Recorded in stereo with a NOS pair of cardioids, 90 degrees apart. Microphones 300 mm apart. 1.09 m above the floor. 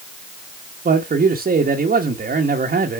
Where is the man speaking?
30° right, 1.2 m.